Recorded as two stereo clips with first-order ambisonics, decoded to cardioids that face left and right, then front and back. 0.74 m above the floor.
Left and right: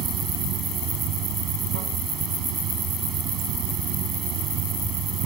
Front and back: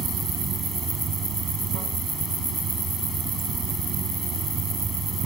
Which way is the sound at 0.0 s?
125° right.